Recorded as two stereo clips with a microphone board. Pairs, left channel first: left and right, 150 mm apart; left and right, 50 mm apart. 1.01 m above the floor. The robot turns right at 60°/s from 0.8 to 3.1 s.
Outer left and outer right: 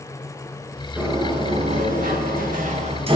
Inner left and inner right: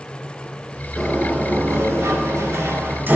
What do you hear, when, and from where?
1.0 s a sliding door: 10° right (ahead or behind), 3 m; by 3.2 s 40° right (ahead or behind), 3 m